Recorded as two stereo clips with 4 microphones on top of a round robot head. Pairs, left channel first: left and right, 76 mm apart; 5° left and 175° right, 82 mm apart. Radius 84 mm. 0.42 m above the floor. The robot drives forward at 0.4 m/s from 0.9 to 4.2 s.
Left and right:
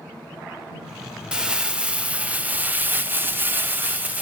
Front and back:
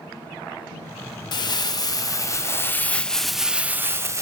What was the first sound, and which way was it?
Crumpling, 15° right.